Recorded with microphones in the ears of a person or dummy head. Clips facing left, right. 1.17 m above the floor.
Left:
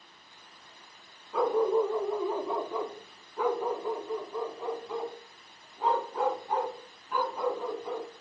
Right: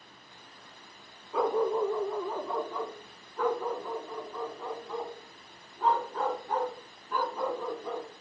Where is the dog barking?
5° right (ahead or behind), 0.7 m; by 8.1 s 10° left (ahead or behind), 4 m.